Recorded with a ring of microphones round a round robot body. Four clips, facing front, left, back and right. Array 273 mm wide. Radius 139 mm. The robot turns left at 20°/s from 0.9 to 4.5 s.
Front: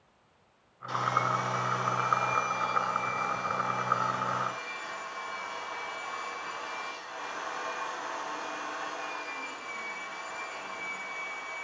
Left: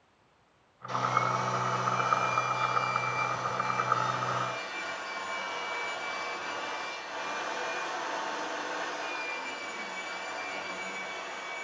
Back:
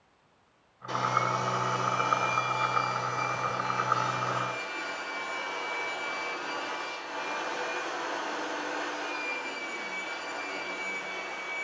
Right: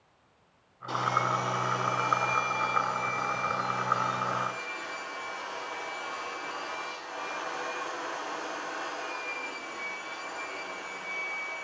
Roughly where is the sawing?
Behind right.